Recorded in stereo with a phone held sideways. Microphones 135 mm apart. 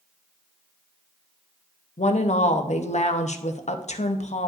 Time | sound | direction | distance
2.0 | a woman speaking | 55° left (ahead or behind) | 0.6 m